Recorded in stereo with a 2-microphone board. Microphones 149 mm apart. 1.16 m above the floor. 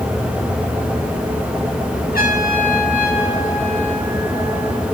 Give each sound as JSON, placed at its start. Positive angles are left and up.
{"t": 2.1, "sound": "a trumpet", "side_deg": 90, "distance_m": 9.5}